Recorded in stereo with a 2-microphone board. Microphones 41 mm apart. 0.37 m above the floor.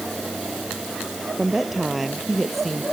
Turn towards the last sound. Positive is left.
turn(degrees=0)  # may be behind; listen again after turning